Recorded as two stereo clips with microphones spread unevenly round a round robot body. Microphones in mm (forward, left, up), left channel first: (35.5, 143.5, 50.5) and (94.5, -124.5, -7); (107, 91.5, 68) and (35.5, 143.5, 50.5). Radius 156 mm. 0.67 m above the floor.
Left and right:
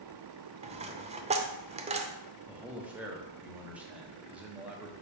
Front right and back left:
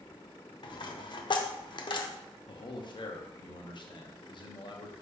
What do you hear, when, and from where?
0.6 s a dropped coin: 5° right, 0.6 m
2.5 s a man speaking: 5° right, 1.0 m